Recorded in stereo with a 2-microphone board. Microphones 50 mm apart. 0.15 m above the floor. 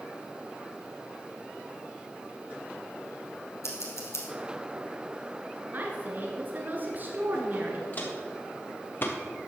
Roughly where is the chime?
I don't hear a chime.